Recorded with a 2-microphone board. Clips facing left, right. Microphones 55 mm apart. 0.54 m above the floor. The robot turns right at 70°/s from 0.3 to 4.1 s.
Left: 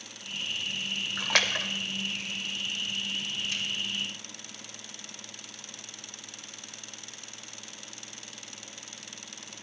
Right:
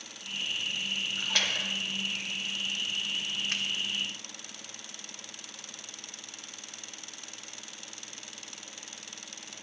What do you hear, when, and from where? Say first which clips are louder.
1.2 s a splash: left 5 dB; 85° left, 0.7 m; by 1.7 s 55° left (ahead or behind), 0.7 m
3.5 s a finger snap: right 2 dB; 50° right (ahead or behind), 0.9 m; by 3.6 s 55° right (ahead or behind), 0.9 m